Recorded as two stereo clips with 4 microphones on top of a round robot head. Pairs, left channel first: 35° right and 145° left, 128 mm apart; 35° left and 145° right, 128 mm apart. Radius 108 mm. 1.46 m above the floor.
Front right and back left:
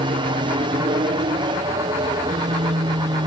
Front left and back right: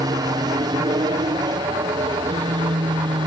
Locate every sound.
0.0 s an aircraft: 170° left; by 3.3 s straight behind